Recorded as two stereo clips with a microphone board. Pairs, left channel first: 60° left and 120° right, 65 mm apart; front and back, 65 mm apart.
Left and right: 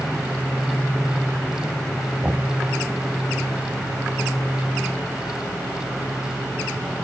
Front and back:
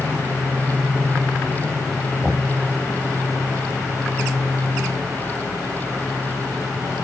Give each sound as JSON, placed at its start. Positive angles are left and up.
{"t": 2.2, "sound": "knocking", "azimuth_deg": -100, "distance_m": 0.7}